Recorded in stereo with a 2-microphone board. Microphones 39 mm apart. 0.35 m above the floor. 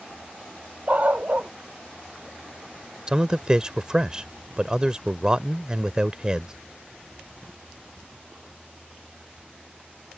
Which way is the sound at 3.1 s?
20° right (ahead or behind).